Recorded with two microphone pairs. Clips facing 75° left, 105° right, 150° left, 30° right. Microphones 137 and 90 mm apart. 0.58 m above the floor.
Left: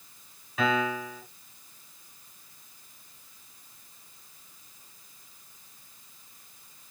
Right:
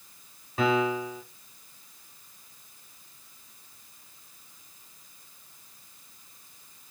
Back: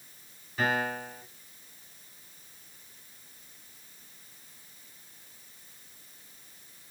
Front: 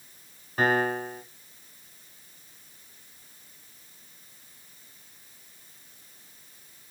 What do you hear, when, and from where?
0.6 s a piano: 55° right, 1.4 m